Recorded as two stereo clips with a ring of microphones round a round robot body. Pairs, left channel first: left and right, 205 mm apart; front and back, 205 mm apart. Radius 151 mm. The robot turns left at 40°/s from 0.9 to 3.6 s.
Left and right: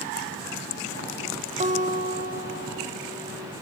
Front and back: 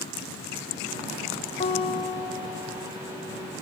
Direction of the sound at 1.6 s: 45° right.